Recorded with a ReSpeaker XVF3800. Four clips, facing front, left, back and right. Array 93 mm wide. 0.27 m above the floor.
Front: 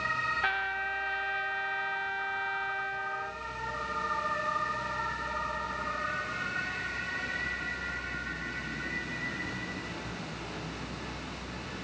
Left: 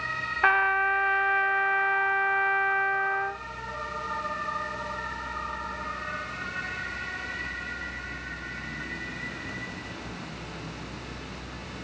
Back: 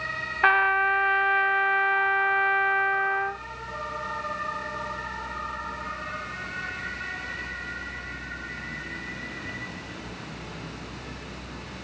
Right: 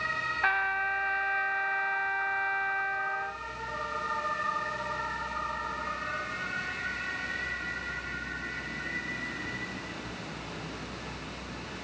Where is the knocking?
I don't hear knocking.